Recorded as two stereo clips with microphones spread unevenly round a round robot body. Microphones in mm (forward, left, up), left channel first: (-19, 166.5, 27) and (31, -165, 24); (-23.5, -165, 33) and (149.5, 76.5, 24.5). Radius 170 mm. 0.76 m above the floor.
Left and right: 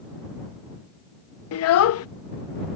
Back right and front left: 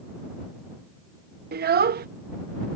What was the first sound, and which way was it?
A child speaking, 90° left.